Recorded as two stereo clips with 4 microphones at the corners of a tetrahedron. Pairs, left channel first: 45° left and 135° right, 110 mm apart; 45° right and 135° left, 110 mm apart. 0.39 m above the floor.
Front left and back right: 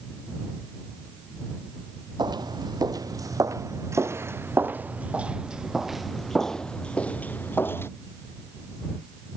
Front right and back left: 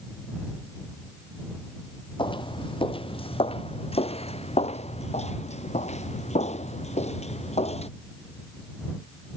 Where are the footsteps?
85° right; by 7.9 s 25° right.